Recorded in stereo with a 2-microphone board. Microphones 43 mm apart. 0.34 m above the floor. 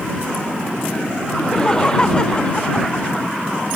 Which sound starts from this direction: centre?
Laughter, at 1.4 s.